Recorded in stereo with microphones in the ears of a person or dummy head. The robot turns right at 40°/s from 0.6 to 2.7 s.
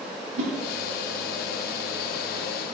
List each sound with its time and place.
0.4 s a whoosh: 70° right (ahead or behind), 1.7 m